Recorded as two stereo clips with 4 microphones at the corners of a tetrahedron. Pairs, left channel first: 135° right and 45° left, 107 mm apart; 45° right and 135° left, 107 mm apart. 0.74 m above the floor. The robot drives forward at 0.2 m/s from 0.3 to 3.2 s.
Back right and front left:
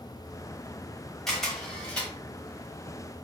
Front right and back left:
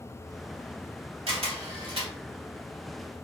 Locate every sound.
1.3 s a camera shutter: 140° left, 0.9 m; by 2.1 s 145° left, 1.0 m